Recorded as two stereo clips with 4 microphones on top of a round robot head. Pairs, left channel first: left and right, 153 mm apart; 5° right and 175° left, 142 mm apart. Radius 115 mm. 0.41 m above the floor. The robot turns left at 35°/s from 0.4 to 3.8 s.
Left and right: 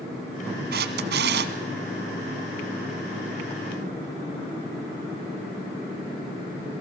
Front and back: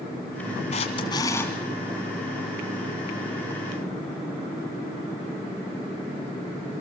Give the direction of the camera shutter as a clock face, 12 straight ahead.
2 o'clock.